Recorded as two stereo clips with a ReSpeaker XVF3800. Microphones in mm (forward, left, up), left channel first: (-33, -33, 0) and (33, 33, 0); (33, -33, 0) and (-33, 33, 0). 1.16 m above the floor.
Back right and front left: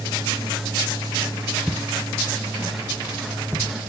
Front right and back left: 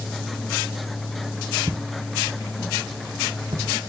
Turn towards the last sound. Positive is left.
turn(degrees=115)